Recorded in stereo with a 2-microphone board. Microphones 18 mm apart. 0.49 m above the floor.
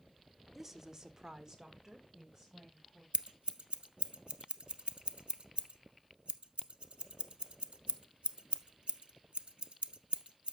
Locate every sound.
0.6 s a woman speaking: 20° right (ahead or behind), 1.0 m; by 3.0 s 25° right (ahead or behind), 3.5 m
3.1 s scissors: 70° right (ahead or behind), 0.8 m